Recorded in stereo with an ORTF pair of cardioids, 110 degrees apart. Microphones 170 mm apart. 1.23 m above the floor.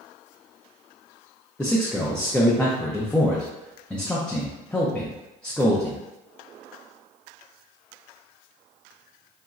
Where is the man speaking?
5° left, 0.6 m.